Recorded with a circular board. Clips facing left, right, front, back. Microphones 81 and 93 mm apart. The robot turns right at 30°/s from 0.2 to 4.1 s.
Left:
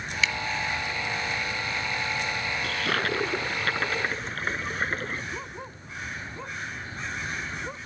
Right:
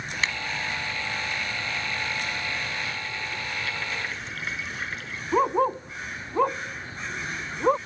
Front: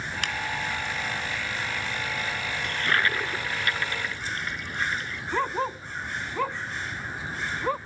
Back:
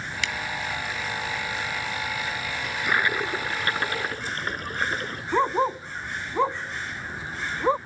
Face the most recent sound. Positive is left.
turn(degrees=-110)